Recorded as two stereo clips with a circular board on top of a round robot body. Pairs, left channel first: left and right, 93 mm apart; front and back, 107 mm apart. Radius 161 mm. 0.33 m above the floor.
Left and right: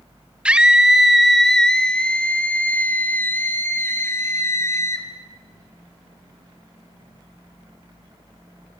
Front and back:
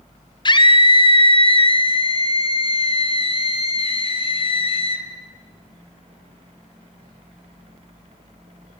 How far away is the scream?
About 1.9 m.